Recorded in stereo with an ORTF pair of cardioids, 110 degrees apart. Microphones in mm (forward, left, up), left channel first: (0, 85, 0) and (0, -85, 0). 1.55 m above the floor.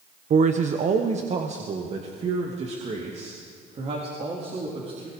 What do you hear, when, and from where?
0.3 s a man speaking: 50° right, 1.0 m; by 5.1 s 35° right, 4.5 m